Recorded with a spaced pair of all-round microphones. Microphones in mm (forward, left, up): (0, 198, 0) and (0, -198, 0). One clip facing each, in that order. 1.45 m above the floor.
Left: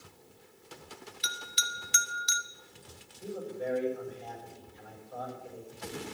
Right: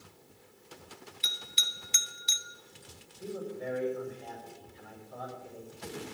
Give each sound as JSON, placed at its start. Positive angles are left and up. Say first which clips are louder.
{"t": 1.2, "sound": "a bell", "louder": "left 3 dB", "side_deg": 25, "distance_m": 0.7}
{"t": 3.2, "sound": "a man speaking", "louder": "left 1 dB", "side_deg": -40, "distance_m": 6.0}